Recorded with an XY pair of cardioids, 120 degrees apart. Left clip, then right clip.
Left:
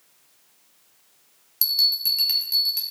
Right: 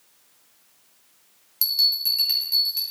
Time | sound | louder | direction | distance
1.6 | a bell | even | 15° left | 1.3 m